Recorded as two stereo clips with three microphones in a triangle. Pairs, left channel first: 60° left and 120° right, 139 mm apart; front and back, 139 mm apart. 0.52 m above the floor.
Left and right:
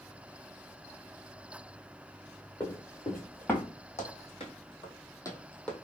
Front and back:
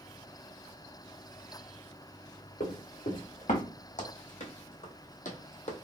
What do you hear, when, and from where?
2.6 s running footsteps: straight ahead, 1.9 m; by 3.6 s 20° right, 1.6 m
4.0 s running footsteps: 25° left, 1.7 m; by 5.7 s 25° right, 1.2 m